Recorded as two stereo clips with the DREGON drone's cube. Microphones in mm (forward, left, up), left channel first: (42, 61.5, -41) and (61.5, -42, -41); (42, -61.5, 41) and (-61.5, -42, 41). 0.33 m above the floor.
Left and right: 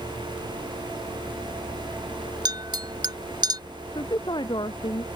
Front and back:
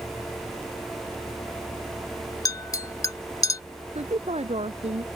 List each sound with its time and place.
2.5 s a clink: 60° right
4.0 s a woman speaking: 150° left